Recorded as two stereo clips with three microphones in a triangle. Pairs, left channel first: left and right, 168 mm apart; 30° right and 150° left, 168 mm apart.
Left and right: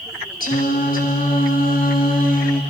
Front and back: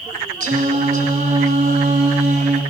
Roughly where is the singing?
Behind left.